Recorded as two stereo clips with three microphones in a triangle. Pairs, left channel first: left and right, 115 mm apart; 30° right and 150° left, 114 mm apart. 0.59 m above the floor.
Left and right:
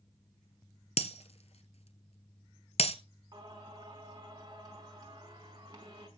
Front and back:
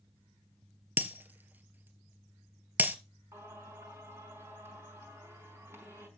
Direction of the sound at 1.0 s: 75° left.